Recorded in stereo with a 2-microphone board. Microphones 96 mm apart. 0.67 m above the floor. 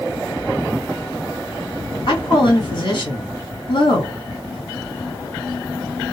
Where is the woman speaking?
55° left (ahead or behind), 1.7 m.